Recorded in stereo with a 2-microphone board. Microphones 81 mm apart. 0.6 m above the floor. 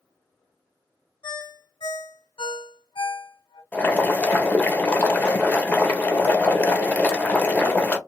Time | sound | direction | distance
1.2 | a ringtone | 80° left | 1.0 m
3.7 | boiling | 20° left (ahead or behind) | 0.7 m